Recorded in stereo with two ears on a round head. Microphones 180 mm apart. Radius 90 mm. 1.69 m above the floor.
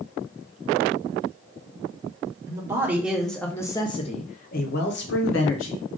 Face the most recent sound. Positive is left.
turn(degrees=75)  # may be behind; listen again after turning